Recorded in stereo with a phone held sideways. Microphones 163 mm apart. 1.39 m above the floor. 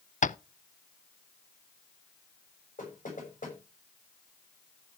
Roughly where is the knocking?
Left.